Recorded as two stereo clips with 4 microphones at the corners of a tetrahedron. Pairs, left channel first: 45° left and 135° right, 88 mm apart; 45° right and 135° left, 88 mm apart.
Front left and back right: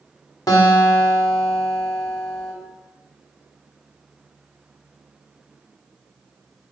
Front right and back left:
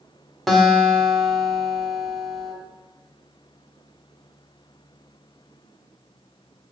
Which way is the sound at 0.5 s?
45° left.